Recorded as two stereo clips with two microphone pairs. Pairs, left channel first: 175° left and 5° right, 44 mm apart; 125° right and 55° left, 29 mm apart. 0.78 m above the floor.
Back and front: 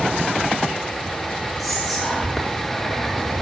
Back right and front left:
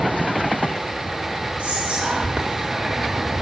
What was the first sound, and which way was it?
Whispering, 80° left.